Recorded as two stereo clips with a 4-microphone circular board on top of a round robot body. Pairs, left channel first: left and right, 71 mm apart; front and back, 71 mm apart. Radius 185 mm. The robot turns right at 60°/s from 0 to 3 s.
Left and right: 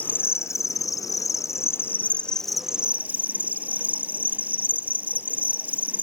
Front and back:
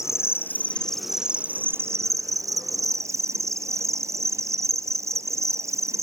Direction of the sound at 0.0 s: 30° left.